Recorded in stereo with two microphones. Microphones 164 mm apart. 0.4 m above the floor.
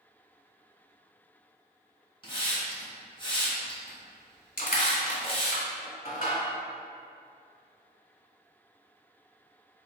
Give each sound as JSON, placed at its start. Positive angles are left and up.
{"t": 2.2, "sound": "a hiss", "side_deg": 30, "distance_m": 1.3}
{"t": 4.6, "sound": "crushing", "side_deg": 55, "distance_m": 1.2}